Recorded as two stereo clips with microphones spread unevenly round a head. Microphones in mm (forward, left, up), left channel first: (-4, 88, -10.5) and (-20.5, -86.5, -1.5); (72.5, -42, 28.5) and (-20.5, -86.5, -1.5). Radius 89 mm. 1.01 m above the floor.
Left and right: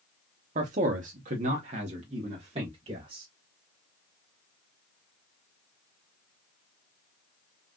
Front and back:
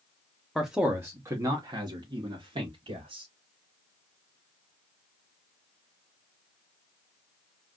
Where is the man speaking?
85° right, 0.7 m; by 3.3 s 155° right, 1.7 m.